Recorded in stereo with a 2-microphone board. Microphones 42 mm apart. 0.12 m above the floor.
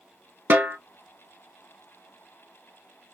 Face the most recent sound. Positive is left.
turn(degrees=-45)  # may be behind; listen again after turning